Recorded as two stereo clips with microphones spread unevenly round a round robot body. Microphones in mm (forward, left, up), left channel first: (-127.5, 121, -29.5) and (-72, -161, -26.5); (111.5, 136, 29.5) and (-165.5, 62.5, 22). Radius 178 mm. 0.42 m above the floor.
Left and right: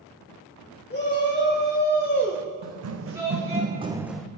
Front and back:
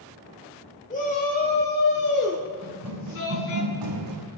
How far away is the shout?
About 1.6 m.